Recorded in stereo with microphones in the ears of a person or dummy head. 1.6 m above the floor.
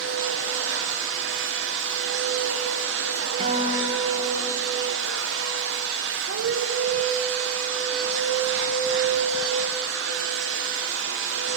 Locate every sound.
0.0 s a machine running: 75° right (ahead or behind), 0.9 m
3.4 s a guitar: 35° right (ahead or behind), 1.8 m